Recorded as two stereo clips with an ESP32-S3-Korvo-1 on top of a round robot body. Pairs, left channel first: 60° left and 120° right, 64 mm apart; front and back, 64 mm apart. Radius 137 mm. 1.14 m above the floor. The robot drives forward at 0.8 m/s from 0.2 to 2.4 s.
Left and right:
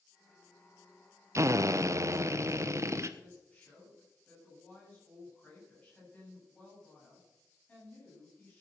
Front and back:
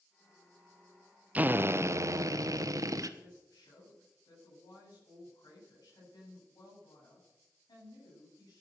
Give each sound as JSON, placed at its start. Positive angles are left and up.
{"t": 1.4, "sound": "a drill", "azimuth_deg": -125, "distance_m": 0.8}
{"t": 3.2, "sound": "a woman speaking", "azimuth_deg": -15, "distance_m": 9.0}